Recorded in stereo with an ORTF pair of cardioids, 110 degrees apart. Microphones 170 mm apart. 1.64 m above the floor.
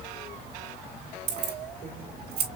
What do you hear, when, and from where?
1.3 s keys jangling: 70° right, 2.5 m